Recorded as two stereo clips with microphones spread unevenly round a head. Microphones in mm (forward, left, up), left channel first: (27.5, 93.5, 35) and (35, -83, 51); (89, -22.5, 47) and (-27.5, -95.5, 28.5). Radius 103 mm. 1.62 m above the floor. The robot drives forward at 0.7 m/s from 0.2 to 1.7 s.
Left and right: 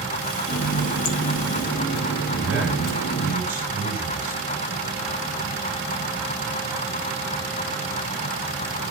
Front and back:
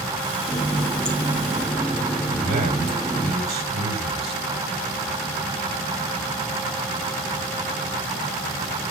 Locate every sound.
0.5 s a running tap: 100° left, 1.7 m; by 3.3 s 130° left, 2 m
2.3 s a man speaking: 170° right, 8.5 m